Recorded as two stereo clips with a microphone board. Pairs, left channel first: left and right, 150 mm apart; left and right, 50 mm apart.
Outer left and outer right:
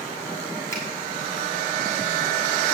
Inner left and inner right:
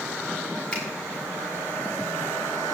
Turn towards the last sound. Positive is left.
turn(degrees=15)  # may be behind; listen again after turning